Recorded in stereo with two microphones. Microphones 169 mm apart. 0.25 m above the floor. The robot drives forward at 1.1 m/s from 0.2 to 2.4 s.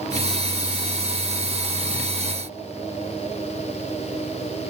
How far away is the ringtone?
I don't hear a ringtone.